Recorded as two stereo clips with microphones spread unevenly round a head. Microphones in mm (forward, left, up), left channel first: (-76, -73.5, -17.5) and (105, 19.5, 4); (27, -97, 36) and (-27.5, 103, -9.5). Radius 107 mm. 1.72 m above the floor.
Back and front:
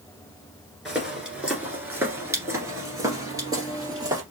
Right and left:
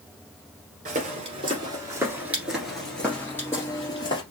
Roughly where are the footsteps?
Left.